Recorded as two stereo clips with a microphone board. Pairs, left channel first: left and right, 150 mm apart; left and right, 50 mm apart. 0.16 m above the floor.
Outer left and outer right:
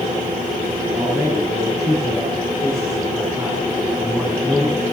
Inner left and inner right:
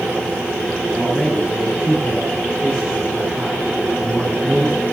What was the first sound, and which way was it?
A man speaking, 20° right (ahead or behind).